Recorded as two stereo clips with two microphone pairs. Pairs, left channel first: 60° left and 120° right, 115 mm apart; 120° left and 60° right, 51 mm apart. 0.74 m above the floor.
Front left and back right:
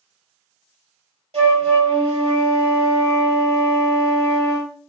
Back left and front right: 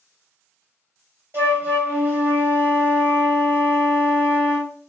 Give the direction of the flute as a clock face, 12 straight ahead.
3 o'clock.